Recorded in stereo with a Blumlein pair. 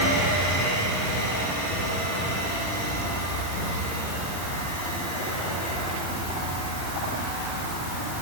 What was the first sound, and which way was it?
Only background noise.